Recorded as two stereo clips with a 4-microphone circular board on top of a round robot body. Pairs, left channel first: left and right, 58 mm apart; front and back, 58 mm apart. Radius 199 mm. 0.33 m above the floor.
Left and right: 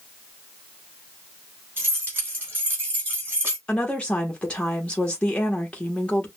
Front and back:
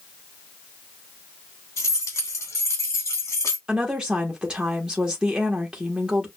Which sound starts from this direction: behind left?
A woman speaking, at 3.7 s.